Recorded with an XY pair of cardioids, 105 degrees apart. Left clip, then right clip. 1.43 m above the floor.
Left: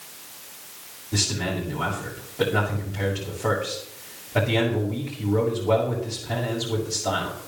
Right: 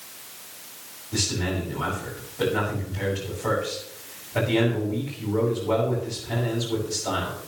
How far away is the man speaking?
About 6.5 m.